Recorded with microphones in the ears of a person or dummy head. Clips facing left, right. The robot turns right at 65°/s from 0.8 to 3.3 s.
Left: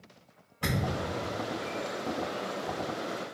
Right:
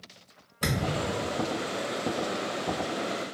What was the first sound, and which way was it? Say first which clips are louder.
A thud: right 2 dB; 20° right (ahead or behind).